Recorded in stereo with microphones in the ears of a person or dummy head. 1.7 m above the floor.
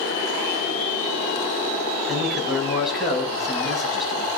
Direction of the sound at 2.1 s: 5° right (ahead or behind).